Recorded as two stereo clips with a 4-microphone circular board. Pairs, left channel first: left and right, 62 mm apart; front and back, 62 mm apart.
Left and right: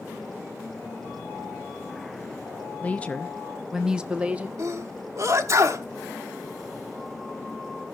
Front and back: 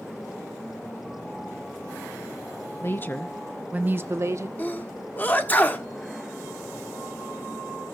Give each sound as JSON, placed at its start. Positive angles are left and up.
{"t": 2.8, "sound": "a woman speaking", "azimuth_deg": 30, "distance_m": 0.7}
{"t": 4.6, "sound": "a sneeze", "azimuth_deg": -60, "distance_m": 1.2}